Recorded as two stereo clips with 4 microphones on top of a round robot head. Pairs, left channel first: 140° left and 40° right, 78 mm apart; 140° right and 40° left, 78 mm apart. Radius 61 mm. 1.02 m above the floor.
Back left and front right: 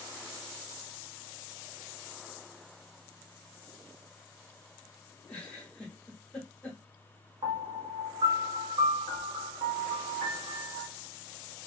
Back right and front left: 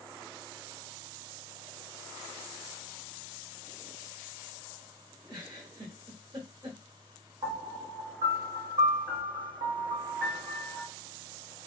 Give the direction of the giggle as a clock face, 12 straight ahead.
10 o'clock.